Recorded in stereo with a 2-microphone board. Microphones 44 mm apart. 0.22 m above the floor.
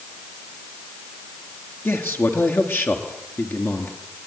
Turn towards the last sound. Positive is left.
turn(degrees=65)  # may be behind; listen again after turning